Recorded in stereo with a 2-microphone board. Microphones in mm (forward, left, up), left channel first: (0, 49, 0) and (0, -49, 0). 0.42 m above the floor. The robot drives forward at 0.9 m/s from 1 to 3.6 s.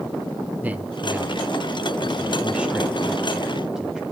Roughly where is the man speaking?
Centre.